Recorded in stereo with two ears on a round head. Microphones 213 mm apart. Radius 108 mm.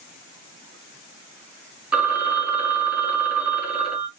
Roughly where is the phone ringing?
Centre.